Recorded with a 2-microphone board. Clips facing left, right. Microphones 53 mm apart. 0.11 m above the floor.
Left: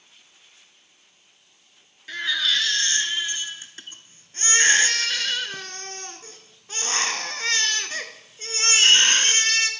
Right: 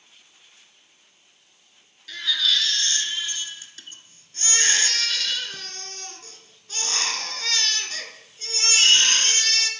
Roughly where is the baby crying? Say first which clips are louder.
Left 1 dB; left.